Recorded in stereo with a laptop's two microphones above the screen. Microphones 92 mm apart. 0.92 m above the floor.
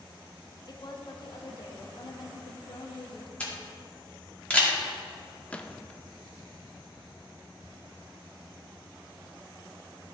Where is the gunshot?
15° left (ahead or behind), 0.5 m.